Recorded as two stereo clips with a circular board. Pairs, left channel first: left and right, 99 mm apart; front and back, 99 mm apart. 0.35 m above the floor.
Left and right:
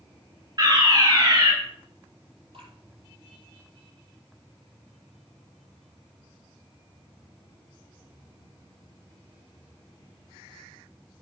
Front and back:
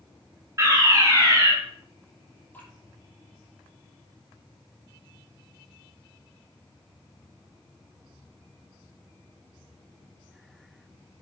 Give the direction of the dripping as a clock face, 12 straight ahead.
2 o'clock.